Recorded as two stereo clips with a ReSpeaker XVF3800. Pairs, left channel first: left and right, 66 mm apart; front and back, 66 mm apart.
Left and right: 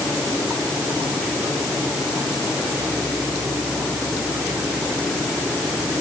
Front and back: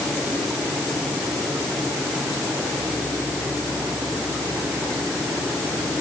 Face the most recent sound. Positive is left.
No sound to turn to.